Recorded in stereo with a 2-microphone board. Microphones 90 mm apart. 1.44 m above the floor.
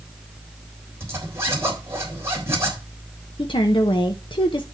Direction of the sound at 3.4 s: 70° left (ahead or behind).